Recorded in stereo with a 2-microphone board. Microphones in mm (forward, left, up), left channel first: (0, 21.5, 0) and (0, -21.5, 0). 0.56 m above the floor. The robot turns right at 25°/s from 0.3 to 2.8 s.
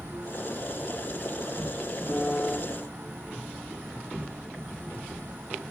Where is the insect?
115° right, 2 m; by 5.7 s 50° right, 2 m.